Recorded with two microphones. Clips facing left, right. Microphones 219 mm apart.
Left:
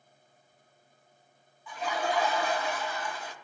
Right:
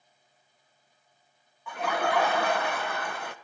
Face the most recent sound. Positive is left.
turn(degrees=-60)  # may be behind; listen again after turning